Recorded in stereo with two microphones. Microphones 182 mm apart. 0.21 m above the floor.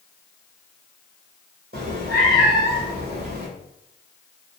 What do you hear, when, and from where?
1.7 s a cat meowing: 60° right (ahead or behind), 1.5 m